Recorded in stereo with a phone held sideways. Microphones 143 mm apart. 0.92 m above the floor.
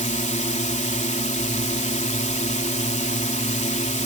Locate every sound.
0.0 s a drone: 55° left (ahead or behind)